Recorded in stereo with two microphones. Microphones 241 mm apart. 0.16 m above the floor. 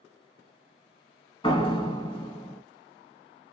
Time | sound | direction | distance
1.4 | a door slam | 20° left (ahead or behind) | 0.9 m